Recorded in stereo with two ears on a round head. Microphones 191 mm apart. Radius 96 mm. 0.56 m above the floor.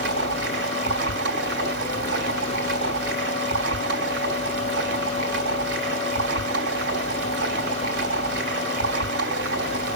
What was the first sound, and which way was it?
Running water, 55° right (ahead or behind).